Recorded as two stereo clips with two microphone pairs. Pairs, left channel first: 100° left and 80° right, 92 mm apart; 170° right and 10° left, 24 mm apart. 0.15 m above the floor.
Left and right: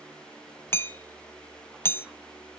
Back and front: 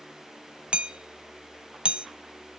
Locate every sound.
0.7 s hammering: 40° left, 0.7 m